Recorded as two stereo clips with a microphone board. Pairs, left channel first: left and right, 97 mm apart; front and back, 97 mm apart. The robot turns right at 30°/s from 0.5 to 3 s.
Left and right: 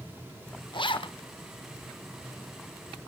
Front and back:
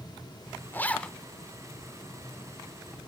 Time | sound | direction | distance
0.7 | a zipper | 65° left | 0.8 m